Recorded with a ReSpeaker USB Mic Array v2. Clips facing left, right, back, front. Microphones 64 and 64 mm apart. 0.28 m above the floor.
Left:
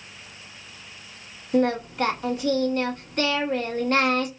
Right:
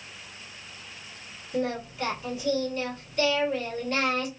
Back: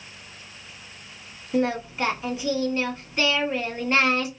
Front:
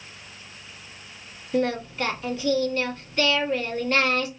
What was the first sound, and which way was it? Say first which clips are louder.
Singing: left 7 dB, even; 110° left.